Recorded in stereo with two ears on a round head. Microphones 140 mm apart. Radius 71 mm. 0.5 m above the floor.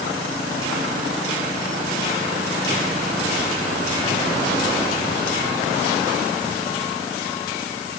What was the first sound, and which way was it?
Only background noise.